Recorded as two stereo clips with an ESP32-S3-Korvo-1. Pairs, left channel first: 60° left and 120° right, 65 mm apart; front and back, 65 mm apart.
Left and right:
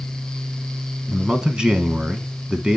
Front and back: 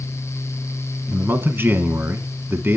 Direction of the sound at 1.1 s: 170° left.